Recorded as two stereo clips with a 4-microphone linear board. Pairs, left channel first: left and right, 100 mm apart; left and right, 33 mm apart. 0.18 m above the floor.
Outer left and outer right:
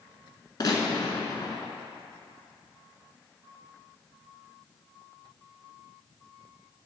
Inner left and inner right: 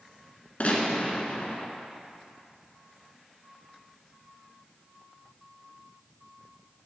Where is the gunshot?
45° left (ahead or behind), 1.0 m.